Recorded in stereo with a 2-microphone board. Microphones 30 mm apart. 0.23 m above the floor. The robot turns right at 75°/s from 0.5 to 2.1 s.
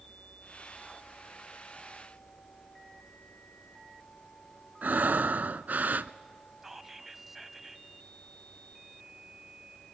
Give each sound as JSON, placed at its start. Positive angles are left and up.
{"t": 4.8, "sound": "breathing", "side_deg": -70, "distance_m": 0.5}
{"t": 6.6, "sound": "whispering", "side_deg": -10, "distance_m": 1.0}